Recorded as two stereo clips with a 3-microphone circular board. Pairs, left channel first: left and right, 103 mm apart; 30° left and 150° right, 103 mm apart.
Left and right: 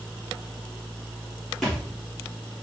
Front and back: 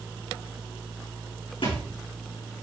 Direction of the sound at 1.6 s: 5° left.